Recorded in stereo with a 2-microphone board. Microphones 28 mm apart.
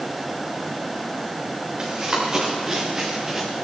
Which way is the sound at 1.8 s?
30° right (ahead or behind).